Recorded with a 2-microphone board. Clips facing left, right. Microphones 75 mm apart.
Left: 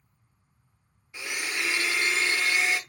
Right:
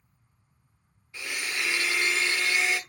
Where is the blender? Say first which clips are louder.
Left 1 dB; 15° left (ahead or behind), 0.7 m.